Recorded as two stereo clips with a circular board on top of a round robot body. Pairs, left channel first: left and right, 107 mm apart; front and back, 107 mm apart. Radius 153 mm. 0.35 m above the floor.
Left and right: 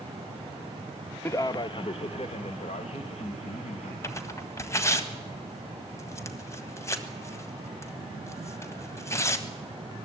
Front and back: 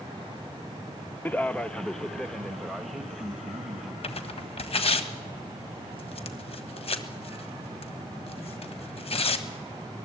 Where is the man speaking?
55° left, 0.9 m; by 3.9 s 95° left, 3.5 m.